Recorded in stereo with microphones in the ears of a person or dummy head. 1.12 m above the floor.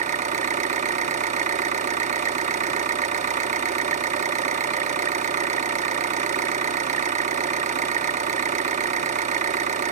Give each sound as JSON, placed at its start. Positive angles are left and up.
{"t": 0.0, "sound": "an engine running", "side_deg": -40, "distance_m": 0.7}